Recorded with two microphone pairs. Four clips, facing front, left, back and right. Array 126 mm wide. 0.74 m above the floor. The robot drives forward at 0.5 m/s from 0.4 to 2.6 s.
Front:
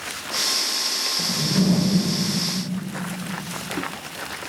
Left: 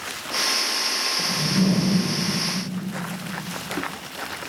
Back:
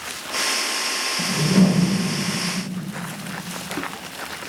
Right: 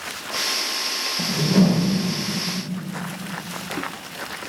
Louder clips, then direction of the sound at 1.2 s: Right 5 dB, back 5 dB; 120° right.